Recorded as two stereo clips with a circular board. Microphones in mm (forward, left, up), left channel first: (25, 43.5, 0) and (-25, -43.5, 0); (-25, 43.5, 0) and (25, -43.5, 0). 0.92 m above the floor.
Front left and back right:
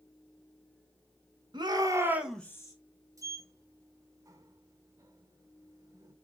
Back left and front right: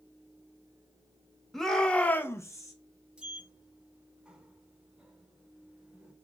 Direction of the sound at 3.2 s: 130° right.